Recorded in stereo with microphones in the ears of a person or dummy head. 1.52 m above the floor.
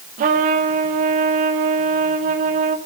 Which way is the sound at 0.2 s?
45° right (ahead or behind).